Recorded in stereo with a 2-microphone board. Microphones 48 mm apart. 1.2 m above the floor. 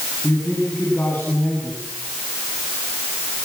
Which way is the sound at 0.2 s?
35° left (ahead or behind).